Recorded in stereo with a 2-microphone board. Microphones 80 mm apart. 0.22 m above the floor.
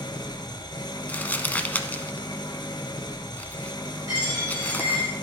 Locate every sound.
0.0 s an engine running: 70° left (ahead or behind), 1.0 m
1.1 s crumpling: 20° left (ahead or behind), 0.6 m
4.1 s a dropped coin: 55° right (ahead or behind), 4.5 m